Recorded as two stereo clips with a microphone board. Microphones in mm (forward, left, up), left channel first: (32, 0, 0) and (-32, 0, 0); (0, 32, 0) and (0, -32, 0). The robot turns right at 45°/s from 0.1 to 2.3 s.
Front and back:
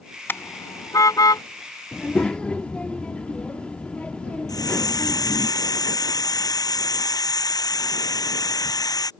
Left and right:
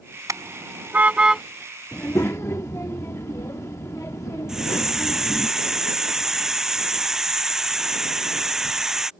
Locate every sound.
0.3 s a car horn: 55° right; by 1.4 s 5° right
1.9 s a child speaking: 50° left; by 5.5 s 65° left
4.5 s a hiss: 5° right